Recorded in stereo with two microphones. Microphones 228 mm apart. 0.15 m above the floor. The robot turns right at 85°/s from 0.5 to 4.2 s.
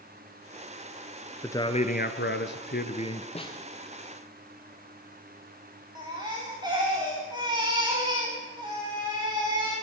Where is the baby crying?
20° right (ahead or behind), 7.5 m.